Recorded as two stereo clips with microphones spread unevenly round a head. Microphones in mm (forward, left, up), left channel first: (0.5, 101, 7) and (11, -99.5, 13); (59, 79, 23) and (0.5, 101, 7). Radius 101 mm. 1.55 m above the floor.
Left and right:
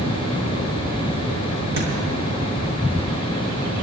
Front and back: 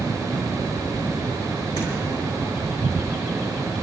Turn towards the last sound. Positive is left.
turn(degrees=-80)